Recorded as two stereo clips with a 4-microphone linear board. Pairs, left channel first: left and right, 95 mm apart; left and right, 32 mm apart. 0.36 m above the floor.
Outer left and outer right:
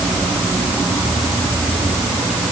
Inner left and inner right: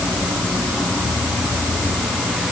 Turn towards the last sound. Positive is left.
No sound to turn to.